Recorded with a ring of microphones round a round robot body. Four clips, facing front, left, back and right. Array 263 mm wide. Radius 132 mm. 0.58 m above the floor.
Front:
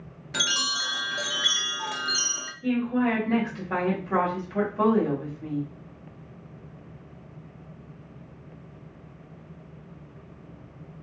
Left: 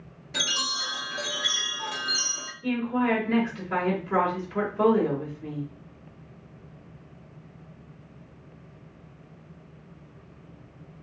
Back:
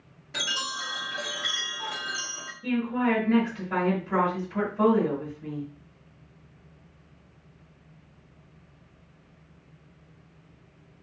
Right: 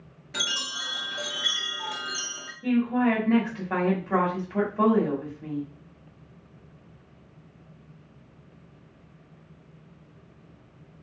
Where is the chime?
5° right, 0.7 m.